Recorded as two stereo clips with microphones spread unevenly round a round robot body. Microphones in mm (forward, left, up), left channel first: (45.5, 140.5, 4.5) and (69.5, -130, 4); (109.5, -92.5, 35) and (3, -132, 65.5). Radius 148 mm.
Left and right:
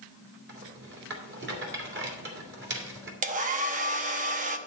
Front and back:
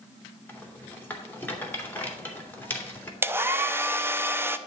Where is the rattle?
45° right, 2.5 m.